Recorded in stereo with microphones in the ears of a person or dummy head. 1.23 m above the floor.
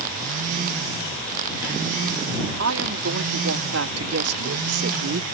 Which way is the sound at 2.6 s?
85° right.